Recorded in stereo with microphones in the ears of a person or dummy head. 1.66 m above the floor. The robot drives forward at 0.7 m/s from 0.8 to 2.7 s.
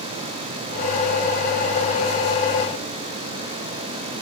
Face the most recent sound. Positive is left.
No sound to turn to.